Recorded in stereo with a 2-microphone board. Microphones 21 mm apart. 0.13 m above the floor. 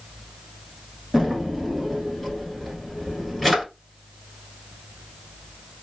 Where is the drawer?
Centre (ahead or behind), 1.2 m.